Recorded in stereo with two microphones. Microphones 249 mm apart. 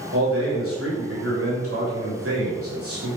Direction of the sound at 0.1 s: 60° right (ahead or behind).